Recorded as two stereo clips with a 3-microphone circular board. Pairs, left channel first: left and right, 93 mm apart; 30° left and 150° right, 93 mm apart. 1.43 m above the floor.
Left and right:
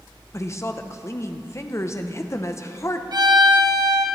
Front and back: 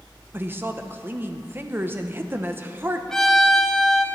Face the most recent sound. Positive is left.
turn(degrees=-55)